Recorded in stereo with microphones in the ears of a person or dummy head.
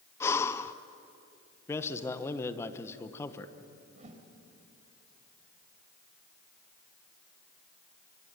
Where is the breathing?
15° left (ahead or behind), 0.9 m.